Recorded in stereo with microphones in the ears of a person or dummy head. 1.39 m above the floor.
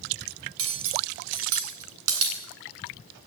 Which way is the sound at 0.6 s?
80° right.